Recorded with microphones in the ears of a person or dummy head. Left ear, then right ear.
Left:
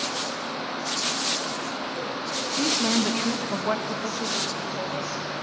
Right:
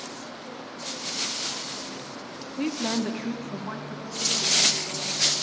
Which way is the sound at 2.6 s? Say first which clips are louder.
Left 4 dB; 10° right (ahead or behind).